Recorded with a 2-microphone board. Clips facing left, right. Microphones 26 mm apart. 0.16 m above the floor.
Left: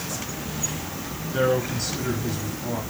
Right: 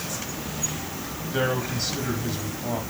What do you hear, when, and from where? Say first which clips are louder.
1.3 s a man speaking: left 3 dB; 20° right (ahead or behind), 6 m